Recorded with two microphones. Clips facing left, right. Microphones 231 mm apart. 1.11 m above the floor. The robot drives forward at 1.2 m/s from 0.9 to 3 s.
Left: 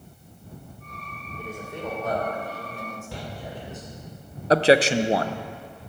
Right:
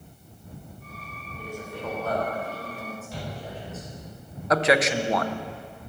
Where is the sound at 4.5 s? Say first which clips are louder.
Left 4 dB; 30° left (ahead or behind), 0.5 m.